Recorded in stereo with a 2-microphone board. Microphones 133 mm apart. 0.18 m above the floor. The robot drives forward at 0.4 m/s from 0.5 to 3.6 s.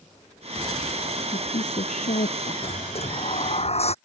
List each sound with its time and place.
1.3 s a woman speaking: 70° left (ahead or behind); by 2.5 s 75° left (ahead or behind)
2.6 s a sliding door: 50° left (ahead or behind)